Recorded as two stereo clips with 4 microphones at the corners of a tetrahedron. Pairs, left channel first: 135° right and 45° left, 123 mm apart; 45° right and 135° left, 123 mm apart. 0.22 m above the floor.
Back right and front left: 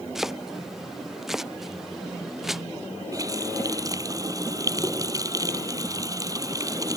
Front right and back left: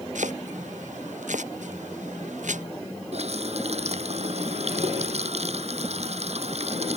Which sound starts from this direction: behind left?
Chopping, at 0.1 s.